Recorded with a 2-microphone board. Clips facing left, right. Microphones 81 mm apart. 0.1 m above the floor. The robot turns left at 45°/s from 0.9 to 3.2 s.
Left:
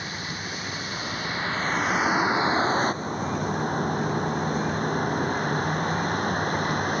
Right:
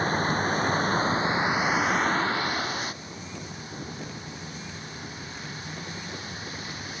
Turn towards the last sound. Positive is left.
turn(degrees=120)